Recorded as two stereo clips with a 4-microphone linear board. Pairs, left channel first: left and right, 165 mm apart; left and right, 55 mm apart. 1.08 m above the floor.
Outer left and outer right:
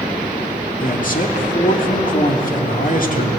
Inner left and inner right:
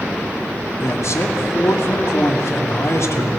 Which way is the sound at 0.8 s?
55° left (ahead or behind).